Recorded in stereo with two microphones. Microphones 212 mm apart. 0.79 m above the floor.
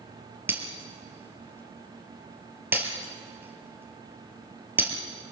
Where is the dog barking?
No dog barking in this recording.